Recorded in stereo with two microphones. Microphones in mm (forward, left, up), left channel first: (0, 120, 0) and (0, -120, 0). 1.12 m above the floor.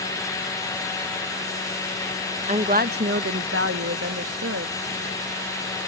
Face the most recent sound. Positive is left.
turn(degrees=-80)